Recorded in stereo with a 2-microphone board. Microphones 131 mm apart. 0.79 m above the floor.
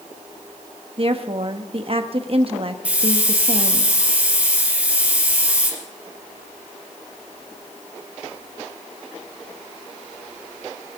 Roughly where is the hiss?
Centre.